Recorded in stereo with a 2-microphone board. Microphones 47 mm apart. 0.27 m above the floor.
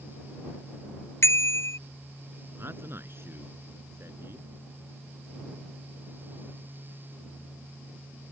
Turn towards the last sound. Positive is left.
turn(degrees=-60)  # may be behind; listen again after turning